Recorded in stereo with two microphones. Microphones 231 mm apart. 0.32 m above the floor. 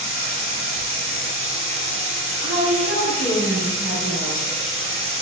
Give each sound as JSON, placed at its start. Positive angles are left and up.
{"t": 0.0, "sound": "running water", "side_deg": 60, "distance_m": 1.0}
{"t": 2.4, "sound": "a woman speaking", "side_deg": -40, "distance_m": 1.8}